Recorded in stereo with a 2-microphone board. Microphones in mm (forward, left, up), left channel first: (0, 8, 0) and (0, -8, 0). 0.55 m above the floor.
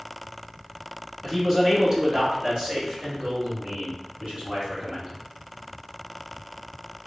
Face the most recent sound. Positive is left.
turn(degrees=-70)  # may be behind; listen again after turning